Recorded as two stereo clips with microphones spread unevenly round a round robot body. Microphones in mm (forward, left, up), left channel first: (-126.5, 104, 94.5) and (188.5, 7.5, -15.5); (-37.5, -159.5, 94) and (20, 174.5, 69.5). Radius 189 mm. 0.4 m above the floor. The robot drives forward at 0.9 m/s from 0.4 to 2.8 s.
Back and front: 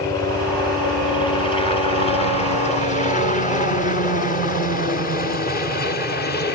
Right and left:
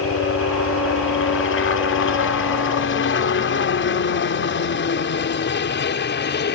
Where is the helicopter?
95° right; by 6.6 s 130° right.